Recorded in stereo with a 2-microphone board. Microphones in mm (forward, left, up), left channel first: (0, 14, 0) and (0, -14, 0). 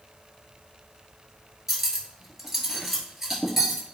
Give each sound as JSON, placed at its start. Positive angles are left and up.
{"t": 1.7, "sound": "cutlery clinking", "side_deg": -10, "distance_m": 1.7}